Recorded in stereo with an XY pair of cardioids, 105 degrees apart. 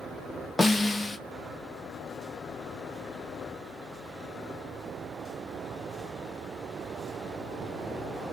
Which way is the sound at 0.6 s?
15° left.